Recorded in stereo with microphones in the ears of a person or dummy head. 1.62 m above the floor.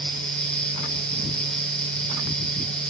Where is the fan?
5° left (ahead or behind), 1.3 m.